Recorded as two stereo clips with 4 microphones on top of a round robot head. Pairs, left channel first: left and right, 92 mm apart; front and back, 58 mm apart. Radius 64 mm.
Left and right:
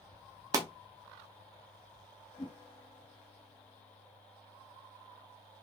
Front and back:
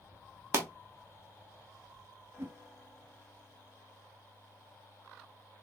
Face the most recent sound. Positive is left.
turn(degrees=135)